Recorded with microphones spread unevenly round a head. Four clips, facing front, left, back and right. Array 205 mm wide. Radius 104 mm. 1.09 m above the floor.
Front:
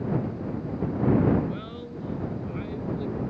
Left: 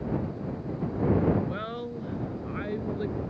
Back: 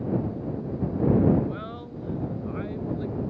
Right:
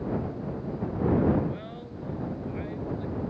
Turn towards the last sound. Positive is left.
turn(degrees=95)